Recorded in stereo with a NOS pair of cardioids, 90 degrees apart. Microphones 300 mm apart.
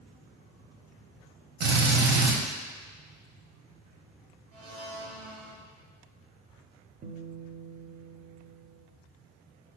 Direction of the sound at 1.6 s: 60° right.